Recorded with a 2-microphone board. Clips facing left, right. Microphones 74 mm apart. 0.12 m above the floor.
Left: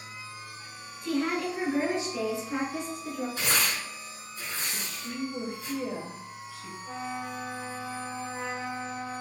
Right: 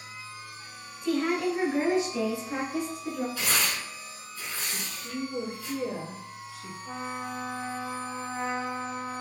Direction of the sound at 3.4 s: 25° left (ahead or behind).